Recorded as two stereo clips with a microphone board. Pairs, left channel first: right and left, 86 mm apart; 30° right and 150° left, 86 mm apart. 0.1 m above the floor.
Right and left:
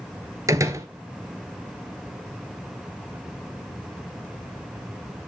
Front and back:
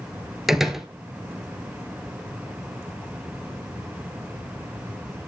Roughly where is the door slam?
Ahead left.